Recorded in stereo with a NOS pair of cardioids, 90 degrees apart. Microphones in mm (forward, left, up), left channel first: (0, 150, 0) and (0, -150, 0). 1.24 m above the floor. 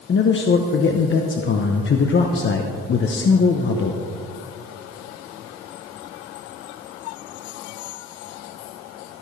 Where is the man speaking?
40° left, 0.9 m.